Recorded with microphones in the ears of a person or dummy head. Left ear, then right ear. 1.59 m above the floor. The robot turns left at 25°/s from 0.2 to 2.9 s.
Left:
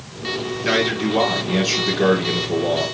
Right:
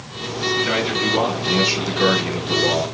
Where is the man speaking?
5° left, 4 m; by 2.9 s 50° right, 4 m.